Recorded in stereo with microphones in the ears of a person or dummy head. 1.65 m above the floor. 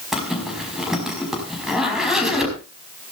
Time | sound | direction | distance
0.1 | a zipper | 5° left (ahead or behind) | 5.5 m